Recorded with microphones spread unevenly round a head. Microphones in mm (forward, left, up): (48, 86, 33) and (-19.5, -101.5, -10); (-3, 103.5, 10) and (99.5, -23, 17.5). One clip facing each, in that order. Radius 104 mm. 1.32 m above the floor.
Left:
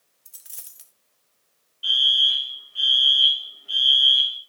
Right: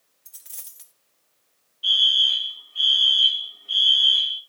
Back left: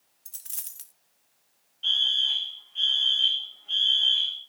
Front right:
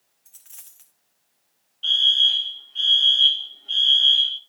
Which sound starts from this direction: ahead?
A fire alarm, at 1.8 s.